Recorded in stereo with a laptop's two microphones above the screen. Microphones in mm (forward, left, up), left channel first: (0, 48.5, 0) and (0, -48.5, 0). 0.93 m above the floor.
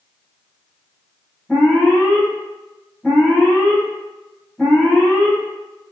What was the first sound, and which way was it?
An alarm, 10° left (ahead or behind).